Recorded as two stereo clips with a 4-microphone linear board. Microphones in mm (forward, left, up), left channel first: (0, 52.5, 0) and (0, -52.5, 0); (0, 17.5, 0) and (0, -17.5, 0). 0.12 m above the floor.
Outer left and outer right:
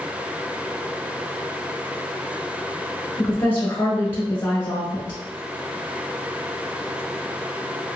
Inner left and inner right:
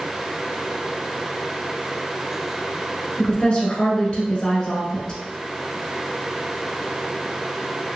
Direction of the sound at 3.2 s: 20° left (ahead or behind).